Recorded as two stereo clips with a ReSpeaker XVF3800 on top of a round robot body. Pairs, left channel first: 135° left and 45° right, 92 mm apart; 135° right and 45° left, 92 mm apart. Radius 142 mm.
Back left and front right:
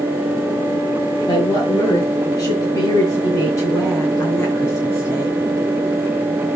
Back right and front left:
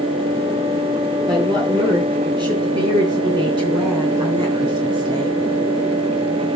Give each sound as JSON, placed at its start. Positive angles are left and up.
{"t": 1.3, "sound": "a woman speaking", "azimuth_deg": 85, "distance_m": 8.0}